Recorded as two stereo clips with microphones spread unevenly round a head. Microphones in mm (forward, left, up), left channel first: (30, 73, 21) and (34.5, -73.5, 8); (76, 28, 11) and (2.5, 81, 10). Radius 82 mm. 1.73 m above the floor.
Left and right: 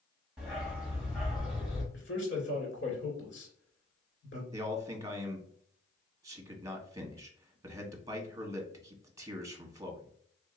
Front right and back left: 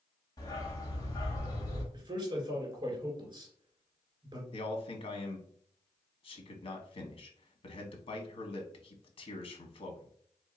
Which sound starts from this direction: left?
A man speaking, at 1.9 s.